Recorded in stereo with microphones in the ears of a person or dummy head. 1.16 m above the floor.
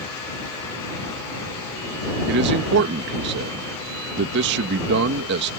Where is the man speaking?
60° right (ahead or behind).